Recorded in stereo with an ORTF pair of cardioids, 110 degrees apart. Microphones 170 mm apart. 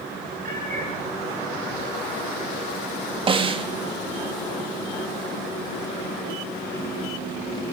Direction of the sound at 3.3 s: 30° right.